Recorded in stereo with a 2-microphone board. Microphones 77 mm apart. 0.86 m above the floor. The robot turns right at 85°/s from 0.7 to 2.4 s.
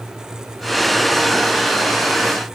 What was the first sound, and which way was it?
Only background noise.